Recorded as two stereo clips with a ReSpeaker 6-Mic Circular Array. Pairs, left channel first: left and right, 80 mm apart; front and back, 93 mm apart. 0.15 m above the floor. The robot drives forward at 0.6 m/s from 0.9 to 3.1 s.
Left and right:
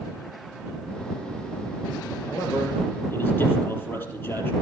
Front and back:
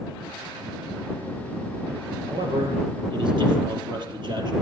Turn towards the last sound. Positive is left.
turn(degrees=155)